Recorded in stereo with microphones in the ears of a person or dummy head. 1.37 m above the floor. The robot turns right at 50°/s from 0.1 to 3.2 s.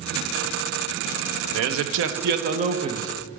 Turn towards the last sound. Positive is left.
turn(degrees=-15)